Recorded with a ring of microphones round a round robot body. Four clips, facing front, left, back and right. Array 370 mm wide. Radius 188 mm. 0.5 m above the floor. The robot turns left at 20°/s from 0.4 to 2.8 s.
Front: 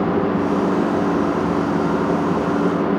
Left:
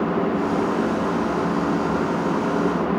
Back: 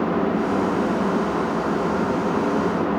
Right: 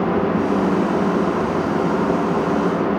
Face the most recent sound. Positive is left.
No sound to turn to.